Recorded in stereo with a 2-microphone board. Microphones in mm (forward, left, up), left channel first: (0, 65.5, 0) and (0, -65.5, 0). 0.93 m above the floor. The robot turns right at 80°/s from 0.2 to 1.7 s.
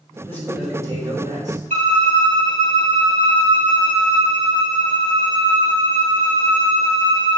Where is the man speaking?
160° left, 3.5 m; by 1.6 s 95° right, 3.5 m.